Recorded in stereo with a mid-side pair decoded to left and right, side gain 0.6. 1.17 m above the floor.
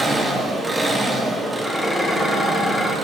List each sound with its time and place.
0.0 s an engine running: 20° right, 1.5 m
1.6 s dishes clattering: straight ahead, 2 m